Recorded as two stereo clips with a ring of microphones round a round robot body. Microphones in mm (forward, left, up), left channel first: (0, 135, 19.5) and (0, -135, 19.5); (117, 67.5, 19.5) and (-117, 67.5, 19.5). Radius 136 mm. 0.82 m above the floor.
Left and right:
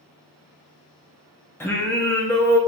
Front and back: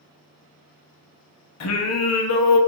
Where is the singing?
5° left, 0.6 m.